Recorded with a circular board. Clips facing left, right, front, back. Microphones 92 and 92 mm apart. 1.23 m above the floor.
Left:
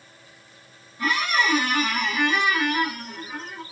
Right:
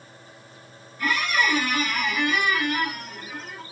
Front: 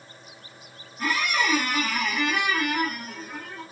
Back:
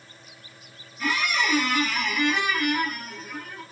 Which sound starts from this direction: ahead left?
A squeak, at 1.0 s.